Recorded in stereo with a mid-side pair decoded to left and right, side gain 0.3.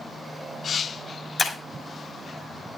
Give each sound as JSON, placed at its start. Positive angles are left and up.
{"t": 1.4, "sound": "breaking glass", "azimuth_deg": 50, "distance_m": 5.0}